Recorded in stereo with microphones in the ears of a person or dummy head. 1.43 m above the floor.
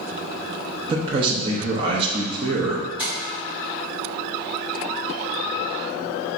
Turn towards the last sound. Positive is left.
turn(degrees=-10)  # may be behind; listen again after turning